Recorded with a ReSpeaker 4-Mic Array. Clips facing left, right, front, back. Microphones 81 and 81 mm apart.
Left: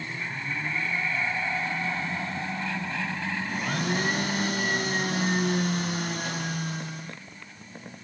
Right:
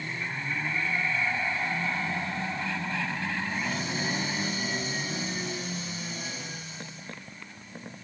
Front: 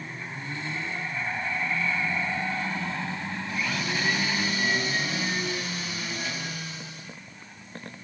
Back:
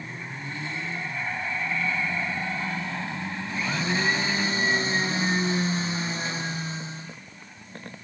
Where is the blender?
120° left, 0.9 m.